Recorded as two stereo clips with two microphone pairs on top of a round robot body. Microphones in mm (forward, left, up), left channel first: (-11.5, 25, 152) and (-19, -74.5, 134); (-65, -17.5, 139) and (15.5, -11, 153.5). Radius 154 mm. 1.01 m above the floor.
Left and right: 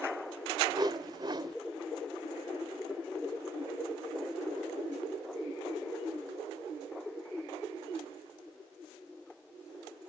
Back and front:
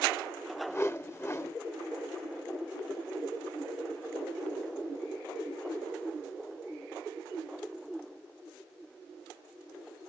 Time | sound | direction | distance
0.7 | a whoosh | 130° right | 0.9 m